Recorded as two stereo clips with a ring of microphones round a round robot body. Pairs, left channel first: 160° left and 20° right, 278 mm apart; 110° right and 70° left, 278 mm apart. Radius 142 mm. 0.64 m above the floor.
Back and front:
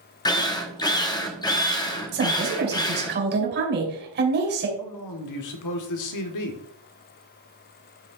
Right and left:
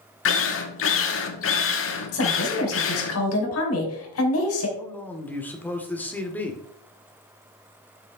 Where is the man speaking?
165° left, 1.6 m.